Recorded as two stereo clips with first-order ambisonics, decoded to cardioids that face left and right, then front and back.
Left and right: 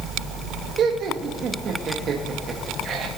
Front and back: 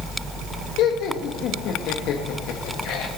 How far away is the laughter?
About 1.8 m.